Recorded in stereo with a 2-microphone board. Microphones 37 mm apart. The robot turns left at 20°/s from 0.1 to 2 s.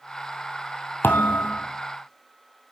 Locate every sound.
1.0 s a thud: 80° left, 1.5 m; by 1.7 s 85° left, 1.5 m